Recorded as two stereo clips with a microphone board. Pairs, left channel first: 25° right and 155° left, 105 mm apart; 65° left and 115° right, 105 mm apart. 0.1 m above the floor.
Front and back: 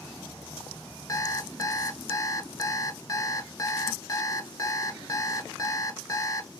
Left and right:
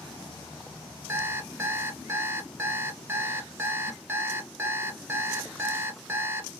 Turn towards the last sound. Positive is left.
turn(degrees=-55)